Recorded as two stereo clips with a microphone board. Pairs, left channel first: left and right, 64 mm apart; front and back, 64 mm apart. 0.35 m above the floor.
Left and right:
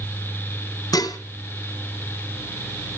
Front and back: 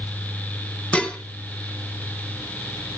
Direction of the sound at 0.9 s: 70° left.